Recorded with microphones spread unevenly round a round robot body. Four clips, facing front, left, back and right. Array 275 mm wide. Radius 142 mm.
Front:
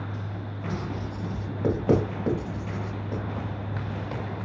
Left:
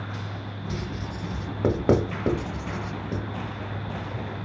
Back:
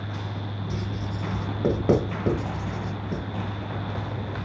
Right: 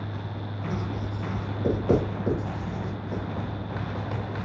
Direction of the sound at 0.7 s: 110° left.